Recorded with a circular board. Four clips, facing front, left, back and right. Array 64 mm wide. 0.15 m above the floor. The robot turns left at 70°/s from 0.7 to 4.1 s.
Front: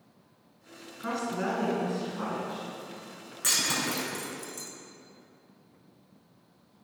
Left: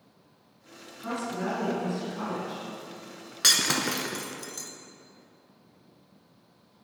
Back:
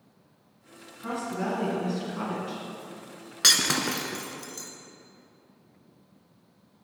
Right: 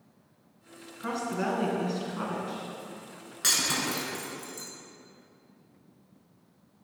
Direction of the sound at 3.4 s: 155° left.